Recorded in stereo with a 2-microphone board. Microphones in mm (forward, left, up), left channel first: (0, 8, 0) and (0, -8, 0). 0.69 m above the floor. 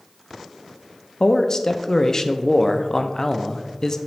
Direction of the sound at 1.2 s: 30° left (ahead or behind).